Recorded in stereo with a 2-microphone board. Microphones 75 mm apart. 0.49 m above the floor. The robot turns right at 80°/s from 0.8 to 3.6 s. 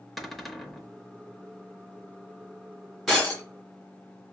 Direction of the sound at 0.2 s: Centre (ahead or behind).